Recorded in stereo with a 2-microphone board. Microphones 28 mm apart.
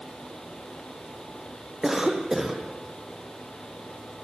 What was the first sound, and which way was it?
A cough, 15° right (ahead or behind).